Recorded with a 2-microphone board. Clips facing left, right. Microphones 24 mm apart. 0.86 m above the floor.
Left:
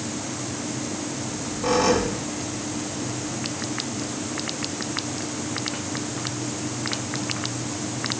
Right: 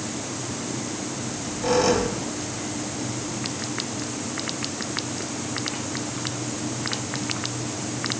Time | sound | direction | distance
1.2 | a squeak | 10° right (ahead or behind) | 2.5 m